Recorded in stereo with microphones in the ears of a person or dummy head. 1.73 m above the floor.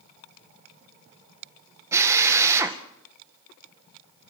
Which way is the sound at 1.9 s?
20° right (ahead or behind).